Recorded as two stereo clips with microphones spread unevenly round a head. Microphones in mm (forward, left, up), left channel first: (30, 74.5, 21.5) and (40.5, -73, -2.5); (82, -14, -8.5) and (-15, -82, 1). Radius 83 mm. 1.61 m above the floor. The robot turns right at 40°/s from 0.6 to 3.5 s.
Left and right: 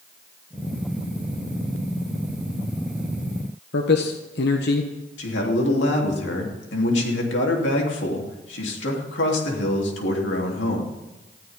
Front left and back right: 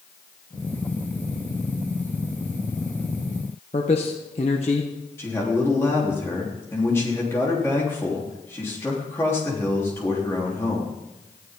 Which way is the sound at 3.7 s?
90° left.